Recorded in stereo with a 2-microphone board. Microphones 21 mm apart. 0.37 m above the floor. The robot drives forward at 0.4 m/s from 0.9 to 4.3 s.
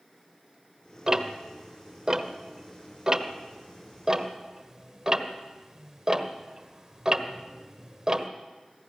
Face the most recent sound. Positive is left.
turn(degrees=-25)  # may be behind; listen again after turning